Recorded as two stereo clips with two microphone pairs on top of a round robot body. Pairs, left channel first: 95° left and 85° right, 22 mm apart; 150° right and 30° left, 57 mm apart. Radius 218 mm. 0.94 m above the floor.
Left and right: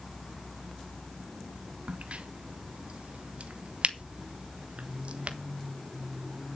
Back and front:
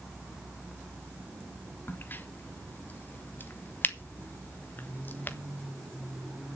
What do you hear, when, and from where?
1.9 s a crack: 100° right, 1.6 m